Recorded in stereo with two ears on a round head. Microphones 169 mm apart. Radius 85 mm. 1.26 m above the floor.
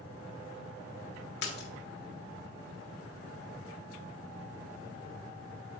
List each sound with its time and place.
1.4 s a splash: 60° left (ahead or behind), 1.6 m